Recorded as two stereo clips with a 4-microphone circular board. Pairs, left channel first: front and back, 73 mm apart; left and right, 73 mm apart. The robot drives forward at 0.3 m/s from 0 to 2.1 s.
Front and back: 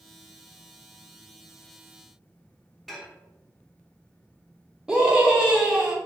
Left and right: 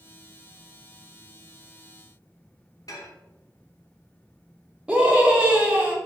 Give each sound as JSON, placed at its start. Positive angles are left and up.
{"t": 2.9, "sound": "dishes clattering", "azimuth_deg": 85, "distance_m": 0.8}
{"t": 4.9, "sound": "a scream", "azimuth_deg": -130, "distance_m": 0.7}